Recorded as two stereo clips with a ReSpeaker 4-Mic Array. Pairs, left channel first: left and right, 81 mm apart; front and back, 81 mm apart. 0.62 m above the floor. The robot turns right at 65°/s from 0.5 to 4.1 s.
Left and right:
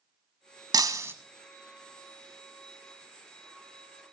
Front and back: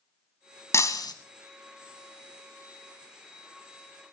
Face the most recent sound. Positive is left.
turn(degrees=165)